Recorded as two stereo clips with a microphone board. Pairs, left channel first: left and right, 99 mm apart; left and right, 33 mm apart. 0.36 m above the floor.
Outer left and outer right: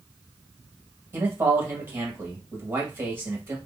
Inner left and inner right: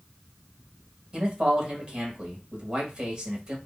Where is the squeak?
No squeak in this recording.